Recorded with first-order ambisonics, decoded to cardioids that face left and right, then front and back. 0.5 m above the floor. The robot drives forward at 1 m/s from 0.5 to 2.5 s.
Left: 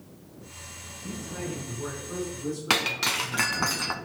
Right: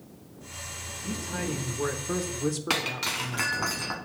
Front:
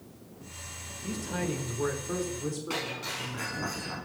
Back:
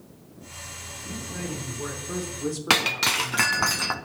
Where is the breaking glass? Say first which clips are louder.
Left 6 dB, back 15 dB; 165° left, 0.6 m.